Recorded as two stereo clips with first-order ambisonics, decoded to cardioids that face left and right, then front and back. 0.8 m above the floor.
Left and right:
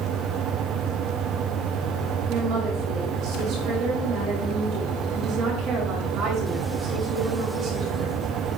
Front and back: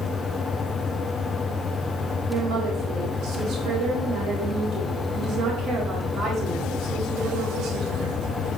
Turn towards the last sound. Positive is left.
turn(degrees=-135)